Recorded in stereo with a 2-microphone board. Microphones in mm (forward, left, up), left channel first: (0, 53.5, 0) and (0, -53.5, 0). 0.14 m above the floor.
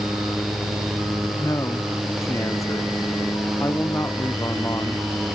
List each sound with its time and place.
1.4 s a man speaking: 30° left (ahead or behind)